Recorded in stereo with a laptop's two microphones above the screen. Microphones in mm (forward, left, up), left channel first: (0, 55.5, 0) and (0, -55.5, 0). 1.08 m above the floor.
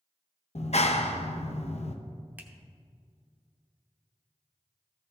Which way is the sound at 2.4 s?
15° right (ahead or behind).